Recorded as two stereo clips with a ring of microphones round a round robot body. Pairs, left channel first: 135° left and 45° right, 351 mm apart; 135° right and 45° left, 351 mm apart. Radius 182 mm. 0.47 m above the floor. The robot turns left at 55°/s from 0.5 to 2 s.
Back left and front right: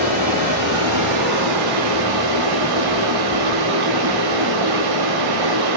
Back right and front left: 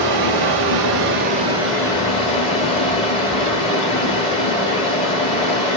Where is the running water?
20° left, 1.3 m; by 5.8 s 60° right, 1.3 m.